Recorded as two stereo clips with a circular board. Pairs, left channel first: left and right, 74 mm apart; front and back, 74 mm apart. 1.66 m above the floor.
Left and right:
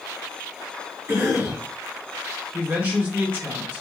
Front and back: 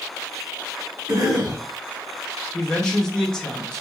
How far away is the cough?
About 1.4 m.